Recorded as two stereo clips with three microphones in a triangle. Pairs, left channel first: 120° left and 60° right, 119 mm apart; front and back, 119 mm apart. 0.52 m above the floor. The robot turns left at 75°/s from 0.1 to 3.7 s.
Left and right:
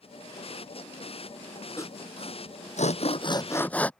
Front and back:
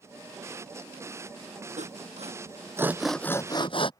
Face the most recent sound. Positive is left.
turn(degrees=40)